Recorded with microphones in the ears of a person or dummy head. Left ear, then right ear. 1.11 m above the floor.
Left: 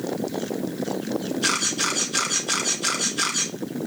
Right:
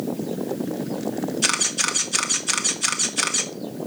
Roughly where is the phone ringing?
No phone ringing in this recording.